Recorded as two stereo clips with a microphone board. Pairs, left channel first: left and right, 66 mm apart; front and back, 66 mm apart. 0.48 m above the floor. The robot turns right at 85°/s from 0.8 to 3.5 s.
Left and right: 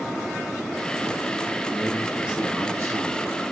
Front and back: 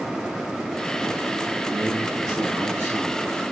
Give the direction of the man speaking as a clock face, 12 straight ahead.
7 o'clock.